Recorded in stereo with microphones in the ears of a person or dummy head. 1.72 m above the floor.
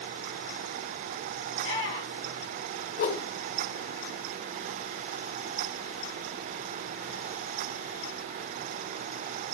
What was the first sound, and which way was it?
A shout, 20° left (ahead or behind).